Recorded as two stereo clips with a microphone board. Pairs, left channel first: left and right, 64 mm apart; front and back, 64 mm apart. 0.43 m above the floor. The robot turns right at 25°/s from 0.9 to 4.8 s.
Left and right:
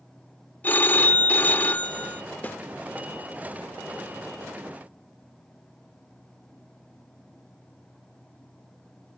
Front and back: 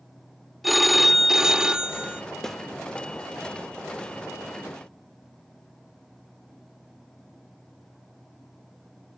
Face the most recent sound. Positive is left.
turn(degrees=135)